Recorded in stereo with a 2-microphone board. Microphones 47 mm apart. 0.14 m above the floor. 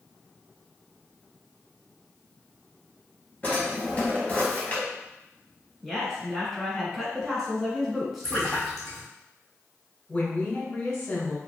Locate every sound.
3.4 s a drawer: 25° left (ahead or behind), 1.2 m
5.8 s a woman speaking: 5° right (ahead or behind), 1.2 m
8.2 s a splash: 5° left (ahead or behind), 1.9 m
10.1 s a woman speaking: 20° left (ahead or behind), 1.4 m